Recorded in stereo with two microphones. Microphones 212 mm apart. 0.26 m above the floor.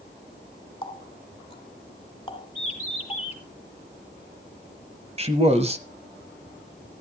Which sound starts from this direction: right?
A man speaking, at 5.2 s.